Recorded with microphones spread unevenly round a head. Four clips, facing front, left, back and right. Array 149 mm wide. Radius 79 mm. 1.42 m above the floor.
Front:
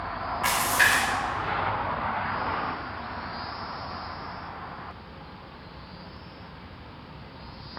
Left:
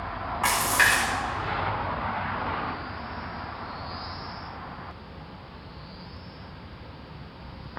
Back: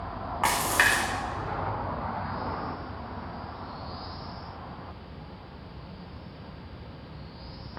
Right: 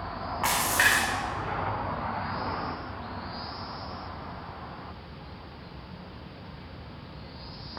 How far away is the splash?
About 2.5 m.